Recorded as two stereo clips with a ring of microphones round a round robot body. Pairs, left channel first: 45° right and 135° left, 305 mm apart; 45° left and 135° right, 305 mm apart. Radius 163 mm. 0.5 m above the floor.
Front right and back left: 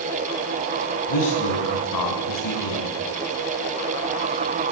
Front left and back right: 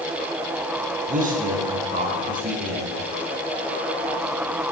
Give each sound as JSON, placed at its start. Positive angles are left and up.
{"t": 1.1, "sound": "a man speaking", "azimuth_deg": -70, "distance_m": 7.0}